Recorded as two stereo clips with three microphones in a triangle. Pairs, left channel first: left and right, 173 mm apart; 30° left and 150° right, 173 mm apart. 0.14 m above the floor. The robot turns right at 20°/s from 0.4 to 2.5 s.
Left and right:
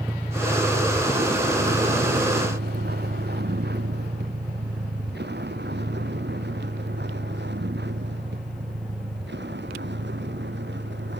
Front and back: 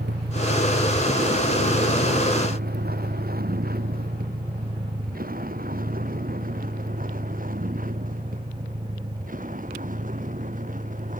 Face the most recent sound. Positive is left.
turn(degrees=-105)